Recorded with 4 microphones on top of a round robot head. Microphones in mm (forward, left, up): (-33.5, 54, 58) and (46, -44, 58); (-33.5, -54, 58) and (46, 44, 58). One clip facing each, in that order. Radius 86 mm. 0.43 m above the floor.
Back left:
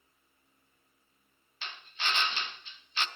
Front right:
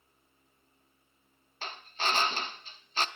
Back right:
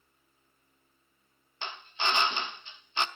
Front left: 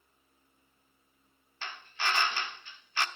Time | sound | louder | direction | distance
1.6 | a drill | front right 4 dB, back right 2 dB | 70° right | 1.0 m